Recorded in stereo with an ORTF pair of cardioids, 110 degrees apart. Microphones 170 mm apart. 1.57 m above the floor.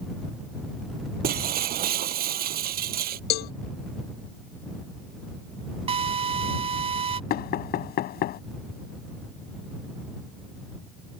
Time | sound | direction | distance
1.2 | breaking glass | 60° right | ?
3.3 | a cowbell | 70° left | ?
5.9 | a drill | 35° right | ?
7.3 | knocking | 65° left | ?